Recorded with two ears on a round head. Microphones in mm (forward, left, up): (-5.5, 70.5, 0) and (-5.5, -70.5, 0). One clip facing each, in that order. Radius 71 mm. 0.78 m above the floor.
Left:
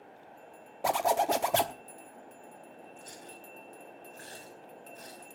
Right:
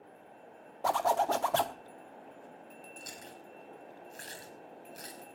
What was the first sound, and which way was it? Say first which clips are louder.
A zipper: left 1 dB; 20° left (ahead or behind).